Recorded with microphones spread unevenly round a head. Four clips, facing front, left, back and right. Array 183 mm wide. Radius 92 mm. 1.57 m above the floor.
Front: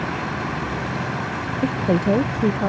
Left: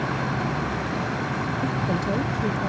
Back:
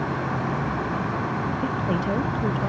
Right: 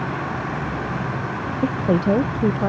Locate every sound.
1.6 s a woman speaking: 45° right